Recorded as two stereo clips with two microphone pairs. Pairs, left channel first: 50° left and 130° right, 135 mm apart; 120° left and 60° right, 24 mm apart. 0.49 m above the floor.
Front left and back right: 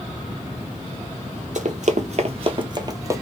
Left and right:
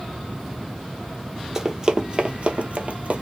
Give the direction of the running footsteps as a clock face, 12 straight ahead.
4 o'clock.